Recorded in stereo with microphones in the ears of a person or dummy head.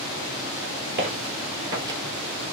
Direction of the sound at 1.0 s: 35° right (ahead or behind).